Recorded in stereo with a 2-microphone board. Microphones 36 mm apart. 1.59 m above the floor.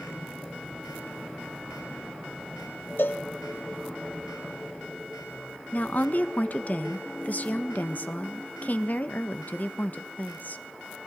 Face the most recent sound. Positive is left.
turn(degrees=50)  # may be behind; listen again after turning